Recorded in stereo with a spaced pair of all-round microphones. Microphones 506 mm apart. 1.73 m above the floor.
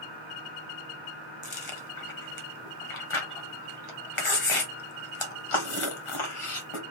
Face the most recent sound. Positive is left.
turn(degrees=75)  # may be behind; listen again after turning